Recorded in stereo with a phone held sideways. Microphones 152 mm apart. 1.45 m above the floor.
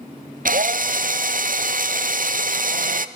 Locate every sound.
0.5 s a drill: 65° right (ahead or behind), 0.6 m